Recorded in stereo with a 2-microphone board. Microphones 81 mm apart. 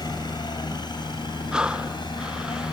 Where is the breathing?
10° right (ahead or behind).